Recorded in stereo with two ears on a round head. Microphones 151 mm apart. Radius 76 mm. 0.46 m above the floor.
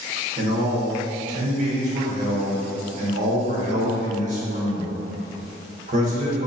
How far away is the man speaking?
About 1.1 m.